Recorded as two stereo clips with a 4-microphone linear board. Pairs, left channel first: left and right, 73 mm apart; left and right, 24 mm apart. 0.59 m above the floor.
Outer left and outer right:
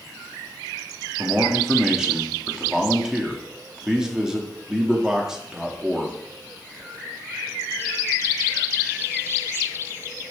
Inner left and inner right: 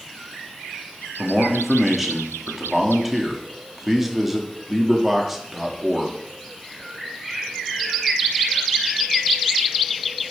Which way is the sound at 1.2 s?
5° right (ahead or behind).